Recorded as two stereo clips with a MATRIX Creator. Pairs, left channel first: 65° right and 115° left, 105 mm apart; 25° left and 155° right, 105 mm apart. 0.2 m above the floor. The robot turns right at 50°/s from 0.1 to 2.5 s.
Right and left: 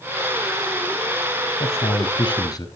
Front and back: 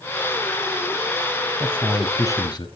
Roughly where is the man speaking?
Ahead right.